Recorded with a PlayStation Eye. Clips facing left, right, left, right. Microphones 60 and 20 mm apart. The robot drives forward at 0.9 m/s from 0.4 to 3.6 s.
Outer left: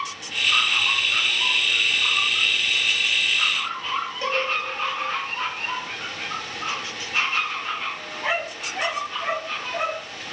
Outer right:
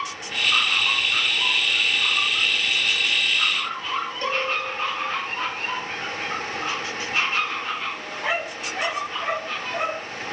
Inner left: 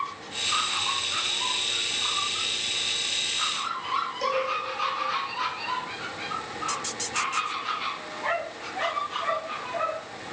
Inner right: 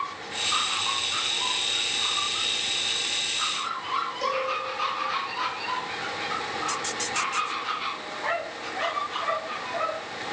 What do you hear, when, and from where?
4.2 s a cowbell: 10° left (ahead or behind), 5.5 m